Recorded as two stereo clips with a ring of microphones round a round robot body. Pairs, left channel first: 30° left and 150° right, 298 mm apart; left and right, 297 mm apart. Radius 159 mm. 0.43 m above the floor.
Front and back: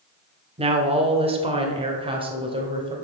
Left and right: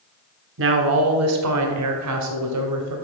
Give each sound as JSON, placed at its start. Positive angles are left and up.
{"t": 0.6, "sound": "a woman speaking", "azimuth_deg": -90, "distance_m": 1.4}